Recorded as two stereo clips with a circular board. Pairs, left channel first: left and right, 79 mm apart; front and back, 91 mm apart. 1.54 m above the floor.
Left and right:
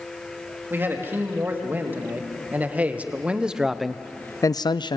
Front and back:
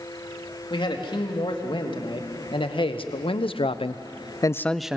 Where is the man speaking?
25° right, 3.5 m; by 5.0 s 100° left, 0.6 m.